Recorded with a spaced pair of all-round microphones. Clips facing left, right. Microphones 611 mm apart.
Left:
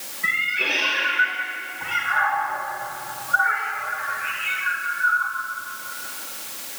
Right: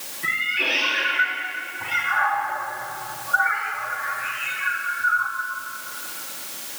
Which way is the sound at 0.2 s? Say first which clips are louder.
Right 1 dB; 55° right (ahead or behind).